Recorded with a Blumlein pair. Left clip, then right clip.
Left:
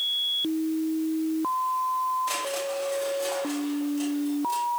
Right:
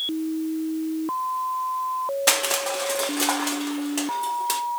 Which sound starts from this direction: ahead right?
Crushing, at 2.3 s.